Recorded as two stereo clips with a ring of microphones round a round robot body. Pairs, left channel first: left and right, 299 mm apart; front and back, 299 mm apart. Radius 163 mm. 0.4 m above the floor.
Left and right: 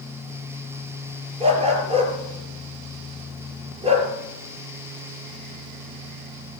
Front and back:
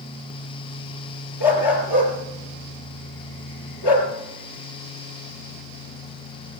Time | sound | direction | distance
1.4 | a dog barking | 20° right | 3.5 m